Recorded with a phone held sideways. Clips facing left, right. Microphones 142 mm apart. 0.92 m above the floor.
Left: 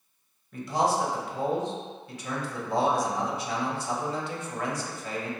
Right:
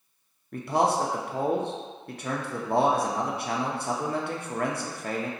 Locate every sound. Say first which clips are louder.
0.5 s a man speaking: right 2 dB; 55° right (ahead or behind), 0.6 m